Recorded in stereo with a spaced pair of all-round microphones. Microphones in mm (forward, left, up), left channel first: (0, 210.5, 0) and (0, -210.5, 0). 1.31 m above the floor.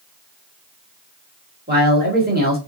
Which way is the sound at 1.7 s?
20° right (ahead or behind).